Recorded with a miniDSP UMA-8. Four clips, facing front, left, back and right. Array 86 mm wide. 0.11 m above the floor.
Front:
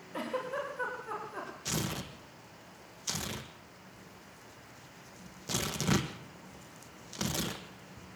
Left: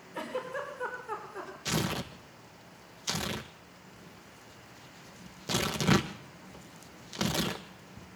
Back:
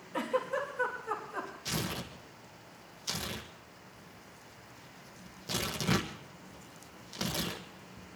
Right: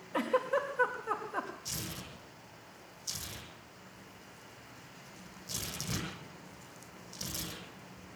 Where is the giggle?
100° right, 5.5 m.